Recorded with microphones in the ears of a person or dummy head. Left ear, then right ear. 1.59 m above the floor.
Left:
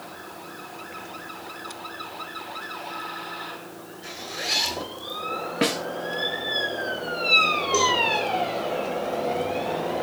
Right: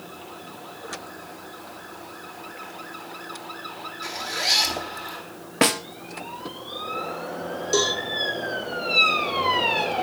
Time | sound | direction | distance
4.0 | a zipper | 75° right (ahead or behind) | 4.5 m
5.6 | a snare drum | 25° right (ahead or behind) | 0.7 m
7.7 | a cowbell | 85° right | 5 m